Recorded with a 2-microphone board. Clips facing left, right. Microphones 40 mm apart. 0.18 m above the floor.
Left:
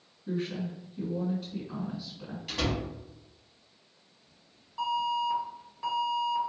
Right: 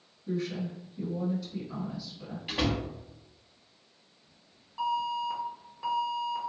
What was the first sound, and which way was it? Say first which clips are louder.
A woman speaking: even; 40° left (ahead or behind).